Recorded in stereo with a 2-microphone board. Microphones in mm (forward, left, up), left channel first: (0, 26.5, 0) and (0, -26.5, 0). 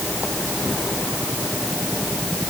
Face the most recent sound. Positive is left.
No sound to turn to.